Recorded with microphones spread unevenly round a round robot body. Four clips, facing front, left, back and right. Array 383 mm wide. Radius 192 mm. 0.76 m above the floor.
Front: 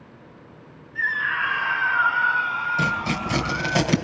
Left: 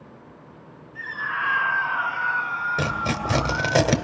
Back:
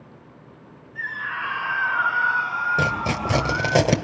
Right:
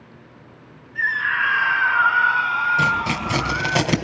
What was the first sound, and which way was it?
A scream, 5° left.